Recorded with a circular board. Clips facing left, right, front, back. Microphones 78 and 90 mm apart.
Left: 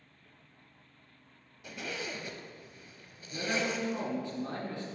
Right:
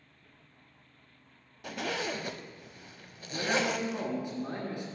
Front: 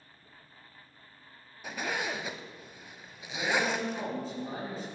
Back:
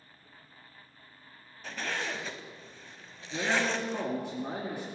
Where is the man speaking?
165° right, 3 m.